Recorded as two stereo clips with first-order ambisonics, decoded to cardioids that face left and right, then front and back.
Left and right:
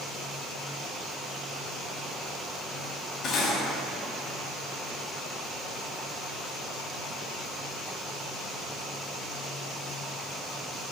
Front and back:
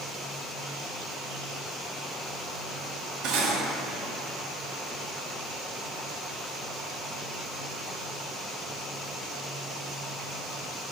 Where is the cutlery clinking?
145° left, 0.5 m.